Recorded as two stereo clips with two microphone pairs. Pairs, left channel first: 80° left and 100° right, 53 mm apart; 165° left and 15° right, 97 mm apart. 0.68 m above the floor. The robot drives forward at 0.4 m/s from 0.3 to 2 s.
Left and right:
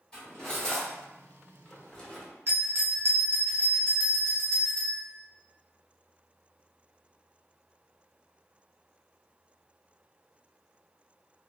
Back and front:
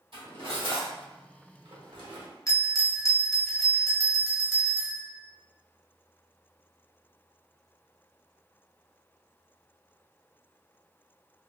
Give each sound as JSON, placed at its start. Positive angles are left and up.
{"t": 0.1, "sound": "cutlery clinking", "azimuth_deg": 5, "distance_m": 1.5}
{"t": 2.5, "sound": "a bell", "azimuth_deg": -140, "distance_m": 0.7}